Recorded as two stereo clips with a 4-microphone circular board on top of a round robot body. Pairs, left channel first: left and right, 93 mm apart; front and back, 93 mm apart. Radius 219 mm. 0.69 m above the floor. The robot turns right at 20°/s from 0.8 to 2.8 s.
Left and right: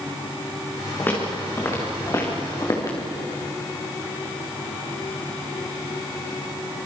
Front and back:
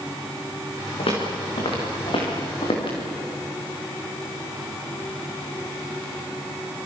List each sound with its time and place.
1.0 s footsteps: 20° left, 6 m; by 3.0 s 30° left, 5 m